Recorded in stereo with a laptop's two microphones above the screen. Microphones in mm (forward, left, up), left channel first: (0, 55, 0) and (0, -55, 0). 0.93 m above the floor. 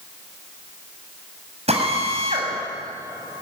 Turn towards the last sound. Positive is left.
turn(degrees=-75)  # may be behind; listen again after turning